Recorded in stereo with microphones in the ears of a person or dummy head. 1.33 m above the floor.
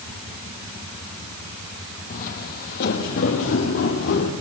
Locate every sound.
2.1 s footsteps: 45° left (ahead or behind), 2.5 m